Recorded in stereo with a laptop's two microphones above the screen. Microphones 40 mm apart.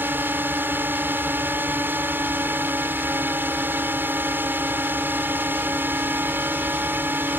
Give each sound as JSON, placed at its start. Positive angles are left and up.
{"t": 0.0, "sound": "a drone", "side_deg": -55}